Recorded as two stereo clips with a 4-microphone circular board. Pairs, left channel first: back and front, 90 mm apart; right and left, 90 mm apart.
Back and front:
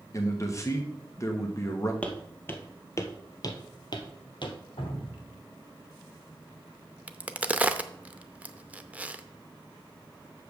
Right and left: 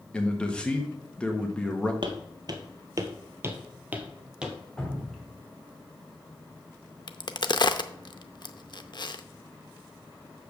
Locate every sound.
0.1 s a man speaking: 160° right, 1.2 m
2.0 s footsteps: 105° left, 1.3 m; by 4.5 s 170° left, 1.4 m
4.8 s dripping: 175° right, 2 m
7.1 s a crack: 70° right, 0.6 m